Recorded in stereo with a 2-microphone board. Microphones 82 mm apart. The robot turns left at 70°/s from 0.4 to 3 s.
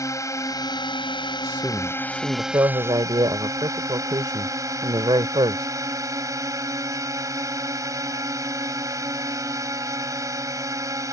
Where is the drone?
140° left; by 11.1 s 45° right.